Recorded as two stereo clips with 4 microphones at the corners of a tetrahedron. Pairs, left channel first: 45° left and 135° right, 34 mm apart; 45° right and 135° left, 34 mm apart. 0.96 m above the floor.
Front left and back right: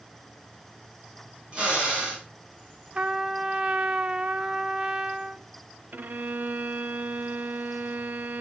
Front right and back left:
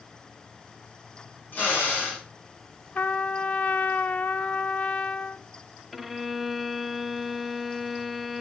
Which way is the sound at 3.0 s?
75° right.